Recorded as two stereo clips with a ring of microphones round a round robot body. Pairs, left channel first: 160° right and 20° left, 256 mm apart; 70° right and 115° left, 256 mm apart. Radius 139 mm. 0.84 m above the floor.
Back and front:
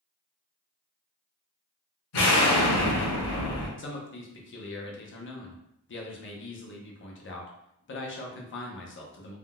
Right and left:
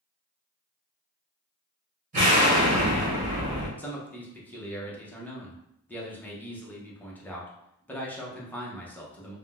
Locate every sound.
2.1 s an explosion: 175° left, 1.4 m
3.8 s a man speaking: 150° right, 0.8 m